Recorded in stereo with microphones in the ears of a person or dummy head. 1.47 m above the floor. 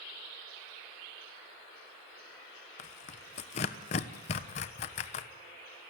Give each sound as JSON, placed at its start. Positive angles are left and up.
{"t": 2.8, "sound": "tearing paper", "side_deg": 40, "distance_m": 1.1}